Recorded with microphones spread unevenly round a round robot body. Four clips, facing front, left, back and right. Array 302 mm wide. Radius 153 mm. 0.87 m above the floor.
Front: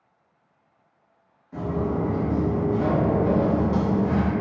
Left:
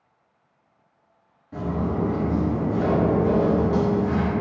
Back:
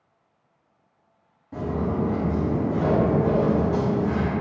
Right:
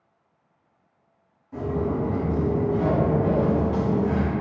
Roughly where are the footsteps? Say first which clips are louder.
Even, even; behind left.